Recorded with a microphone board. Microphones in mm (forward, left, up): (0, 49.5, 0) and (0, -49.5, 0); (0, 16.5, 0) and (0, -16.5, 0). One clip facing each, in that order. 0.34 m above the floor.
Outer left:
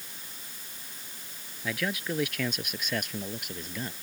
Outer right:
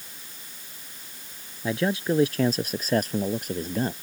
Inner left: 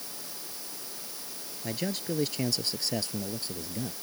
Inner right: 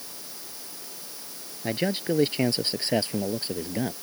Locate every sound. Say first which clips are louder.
1.6 s a man speaking: outer right 7 dB, inner right 6 dB; 30° right (ahead or behind); by 3.9 s 40° right (ahead or behind)